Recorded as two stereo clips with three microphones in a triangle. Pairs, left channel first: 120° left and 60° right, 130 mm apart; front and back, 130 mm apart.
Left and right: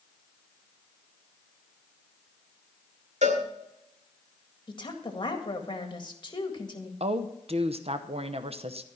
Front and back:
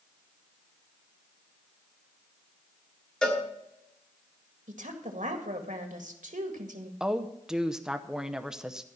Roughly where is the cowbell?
Right.